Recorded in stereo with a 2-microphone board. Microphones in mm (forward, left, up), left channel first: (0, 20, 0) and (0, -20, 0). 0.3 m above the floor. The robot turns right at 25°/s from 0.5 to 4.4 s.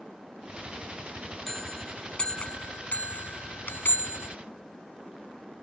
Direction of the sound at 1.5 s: 10° left.